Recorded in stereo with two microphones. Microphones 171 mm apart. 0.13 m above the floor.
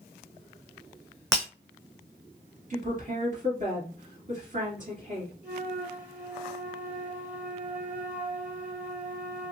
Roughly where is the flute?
Centre.